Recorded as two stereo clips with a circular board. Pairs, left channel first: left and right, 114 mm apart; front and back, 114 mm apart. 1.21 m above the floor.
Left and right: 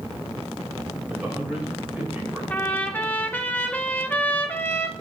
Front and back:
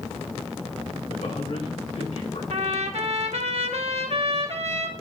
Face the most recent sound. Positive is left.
turn(degrees=165)